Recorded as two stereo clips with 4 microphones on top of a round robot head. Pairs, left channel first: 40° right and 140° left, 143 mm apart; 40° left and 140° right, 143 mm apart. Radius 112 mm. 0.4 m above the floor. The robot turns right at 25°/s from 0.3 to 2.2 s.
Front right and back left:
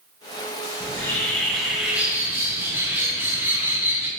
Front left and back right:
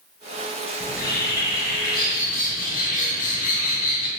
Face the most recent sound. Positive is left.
turn(degrees=65)